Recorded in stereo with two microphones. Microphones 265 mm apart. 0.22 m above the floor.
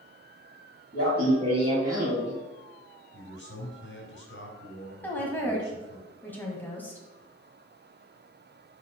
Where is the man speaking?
45° left (ahead or behind), 2.5 m.